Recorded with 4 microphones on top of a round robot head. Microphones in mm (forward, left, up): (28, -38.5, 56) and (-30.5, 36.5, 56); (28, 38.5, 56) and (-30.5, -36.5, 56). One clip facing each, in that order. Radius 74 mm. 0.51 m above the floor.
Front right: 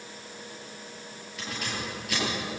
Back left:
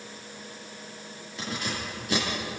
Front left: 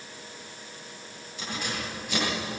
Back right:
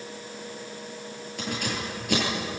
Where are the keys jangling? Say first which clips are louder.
Back left 2 dB, back right 3 dB; 170° right, 9.5 m.